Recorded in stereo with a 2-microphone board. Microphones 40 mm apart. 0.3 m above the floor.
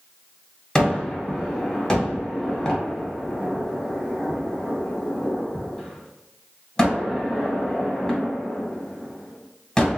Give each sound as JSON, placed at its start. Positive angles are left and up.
{"t": 0.8, "sound": "a gunshot", "side_deg": 15, "distance_m": 1.4}